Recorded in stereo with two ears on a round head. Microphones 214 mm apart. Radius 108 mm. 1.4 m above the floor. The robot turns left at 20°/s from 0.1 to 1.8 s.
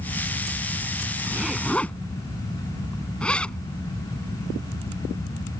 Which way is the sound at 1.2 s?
5° right (ahead or behind).